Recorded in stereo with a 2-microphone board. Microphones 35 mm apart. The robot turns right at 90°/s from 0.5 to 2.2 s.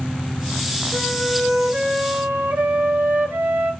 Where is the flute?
165° left, 1.1 m; by 3.7 s 80° right, 1.1 m.